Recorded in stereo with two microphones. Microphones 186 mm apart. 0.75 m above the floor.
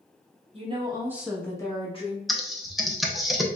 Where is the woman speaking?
35° right (ahead or behind), 1.0 m; by 2.2 s 35° left (ahead or behind), 1.0 m.